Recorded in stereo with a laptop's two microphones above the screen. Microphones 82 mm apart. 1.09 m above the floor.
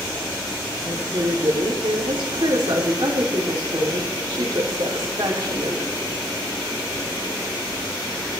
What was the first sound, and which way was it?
A woman speaking, 70° right (ahead or behind).